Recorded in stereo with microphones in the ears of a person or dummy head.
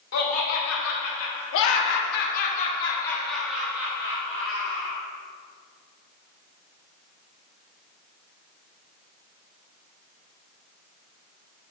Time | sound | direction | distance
0.1 | laughter | 75° left (ahead or behind) | 2.5 m